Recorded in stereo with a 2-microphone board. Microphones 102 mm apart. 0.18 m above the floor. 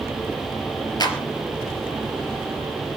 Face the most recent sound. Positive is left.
turn(degrees=40)  # may be behind; listen again after turning